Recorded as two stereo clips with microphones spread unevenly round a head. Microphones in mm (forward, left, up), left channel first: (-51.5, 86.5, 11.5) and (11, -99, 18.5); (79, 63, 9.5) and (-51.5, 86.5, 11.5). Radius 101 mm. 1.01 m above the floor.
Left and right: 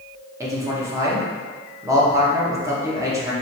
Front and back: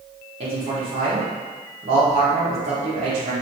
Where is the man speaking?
145° right, 1.1 m.